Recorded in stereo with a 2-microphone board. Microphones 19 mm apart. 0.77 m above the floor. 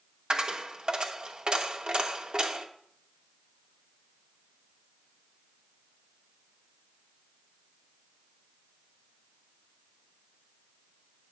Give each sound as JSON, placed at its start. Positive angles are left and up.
{"t": 0.3, "sound": "a dropped coin", "side_deg": -50, "distance_m": 0.8}